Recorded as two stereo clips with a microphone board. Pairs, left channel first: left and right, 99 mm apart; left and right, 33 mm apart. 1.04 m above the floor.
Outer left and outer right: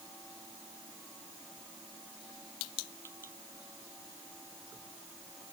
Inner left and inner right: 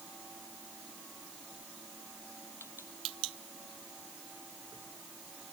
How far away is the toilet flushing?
No toilet flushing in this recording.